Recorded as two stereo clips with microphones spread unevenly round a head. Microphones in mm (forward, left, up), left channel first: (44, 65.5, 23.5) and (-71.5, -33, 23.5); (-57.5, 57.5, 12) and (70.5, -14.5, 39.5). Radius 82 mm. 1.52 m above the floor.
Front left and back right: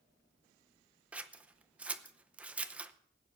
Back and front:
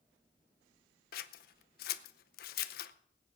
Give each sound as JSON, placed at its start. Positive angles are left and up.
{"t": 1.1, "sound": "scissors", "azimuth_deg": 140, "distance_m": 0.7}